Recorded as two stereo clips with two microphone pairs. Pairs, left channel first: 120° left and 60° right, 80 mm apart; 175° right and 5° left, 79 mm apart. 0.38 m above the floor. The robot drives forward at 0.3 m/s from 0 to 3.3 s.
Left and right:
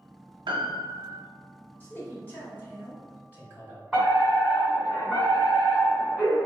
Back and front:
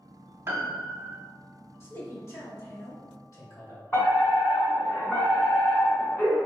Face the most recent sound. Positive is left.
turn(degrees=-155)